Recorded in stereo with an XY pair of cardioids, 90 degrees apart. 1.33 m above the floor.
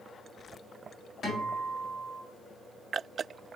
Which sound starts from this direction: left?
A guitar, at 1.2 s.